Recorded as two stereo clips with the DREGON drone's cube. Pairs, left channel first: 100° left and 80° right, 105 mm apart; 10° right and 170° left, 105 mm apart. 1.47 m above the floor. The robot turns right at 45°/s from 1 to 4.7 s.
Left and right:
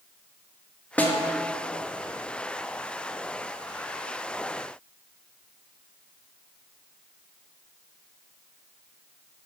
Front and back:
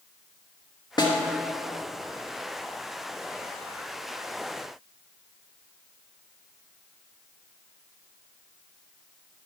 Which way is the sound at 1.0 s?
25° left.